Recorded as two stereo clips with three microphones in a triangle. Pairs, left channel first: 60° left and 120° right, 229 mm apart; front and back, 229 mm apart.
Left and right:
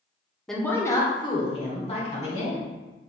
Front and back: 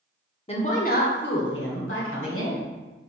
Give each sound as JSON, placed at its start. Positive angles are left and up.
{"t": 0.5, "sound": "a woman speaking", "azimuth_deg": -25, "distance_m": 0.7}